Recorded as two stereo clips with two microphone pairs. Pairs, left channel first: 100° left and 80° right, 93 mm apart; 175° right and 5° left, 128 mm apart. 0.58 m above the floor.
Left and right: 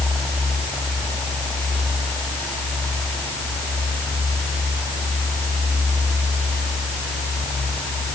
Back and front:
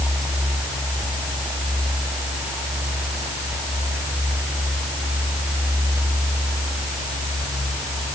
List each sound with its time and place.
Only background noise.